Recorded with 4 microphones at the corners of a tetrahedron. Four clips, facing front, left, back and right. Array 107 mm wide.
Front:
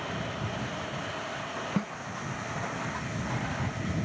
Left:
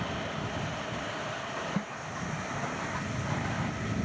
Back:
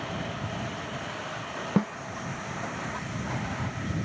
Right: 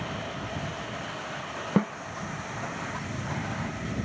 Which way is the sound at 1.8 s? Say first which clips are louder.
Right 9 dB, back 7 dB; 120° right.